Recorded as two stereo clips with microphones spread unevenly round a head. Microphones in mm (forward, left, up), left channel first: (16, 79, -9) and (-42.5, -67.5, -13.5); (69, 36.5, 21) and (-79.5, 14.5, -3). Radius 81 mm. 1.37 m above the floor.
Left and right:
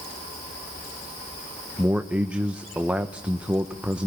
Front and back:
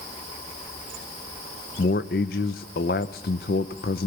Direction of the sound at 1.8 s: 30° right.